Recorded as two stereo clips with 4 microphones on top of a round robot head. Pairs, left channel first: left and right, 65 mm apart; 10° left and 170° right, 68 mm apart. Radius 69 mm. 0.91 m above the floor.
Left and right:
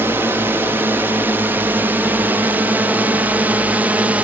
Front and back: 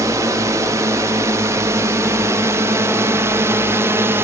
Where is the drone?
145° right; by 4.2 s 150° right.